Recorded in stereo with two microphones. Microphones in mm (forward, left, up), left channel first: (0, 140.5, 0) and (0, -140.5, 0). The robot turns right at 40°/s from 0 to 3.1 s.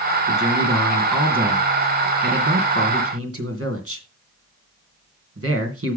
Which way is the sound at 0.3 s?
145° left.